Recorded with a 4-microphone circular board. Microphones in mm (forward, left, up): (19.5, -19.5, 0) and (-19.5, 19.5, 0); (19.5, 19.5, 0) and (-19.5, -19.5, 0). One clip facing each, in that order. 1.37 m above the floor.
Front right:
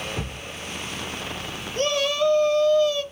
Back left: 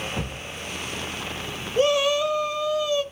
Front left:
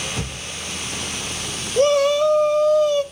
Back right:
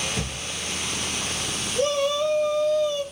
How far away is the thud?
About 1.9 m.